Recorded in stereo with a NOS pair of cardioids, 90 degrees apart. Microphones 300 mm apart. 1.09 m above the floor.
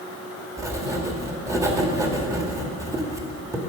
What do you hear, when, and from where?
0.6 s writing: 10° right, 1.6 m